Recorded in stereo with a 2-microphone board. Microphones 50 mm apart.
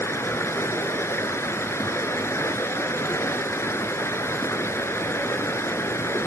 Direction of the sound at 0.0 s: 65° left (ahead or behind).